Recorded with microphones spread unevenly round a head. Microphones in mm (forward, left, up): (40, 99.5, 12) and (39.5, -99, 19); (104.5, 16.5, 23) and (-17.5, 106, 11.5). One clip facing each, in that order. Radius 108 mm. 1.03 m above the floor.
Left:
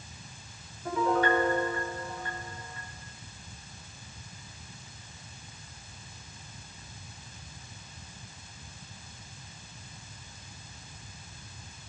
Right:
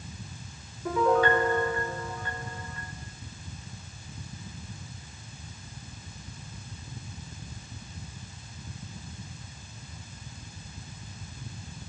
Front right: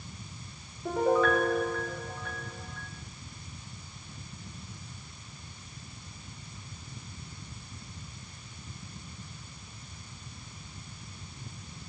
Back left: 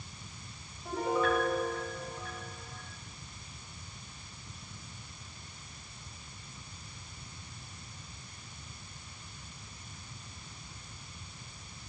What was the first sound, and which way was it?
A piano, 80° right.